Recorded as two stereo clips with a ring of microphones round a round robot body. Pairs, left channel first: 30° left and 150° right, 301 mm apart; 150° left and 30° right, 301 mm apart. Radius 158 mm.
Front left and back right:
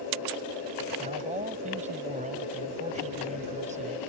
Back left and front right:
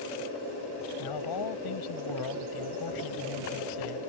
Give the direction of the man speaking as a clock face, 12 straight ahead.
7 o'clock.